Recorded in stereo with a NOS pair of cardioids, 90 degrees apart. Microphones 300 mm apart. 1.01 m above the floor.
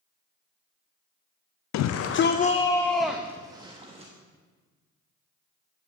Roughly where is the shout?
Left.